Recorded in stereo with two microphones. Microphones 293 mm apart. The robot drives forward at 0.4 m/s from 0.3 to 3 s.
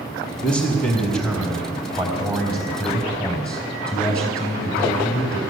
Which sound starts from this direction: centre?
A man speaking, at 0.4 s.